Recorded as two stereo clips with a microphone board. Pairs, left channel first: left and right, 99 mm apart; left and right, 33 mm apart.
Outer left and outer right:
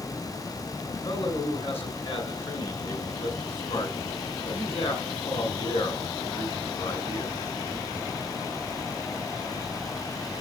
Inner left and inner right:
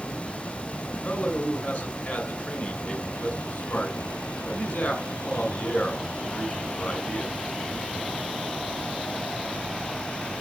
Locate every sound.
0.9 s a man speaking: 70° left (ahead or behind), 4.5 m